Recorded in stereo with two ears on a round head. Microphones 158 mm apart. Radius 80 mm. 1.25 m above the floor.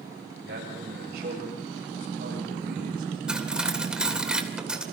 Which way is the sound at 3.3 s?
5° right (ahead or behind).